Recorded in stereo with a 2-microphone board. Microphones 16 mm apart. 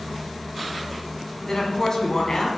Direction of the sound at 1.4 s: 35° left (ahead or behind).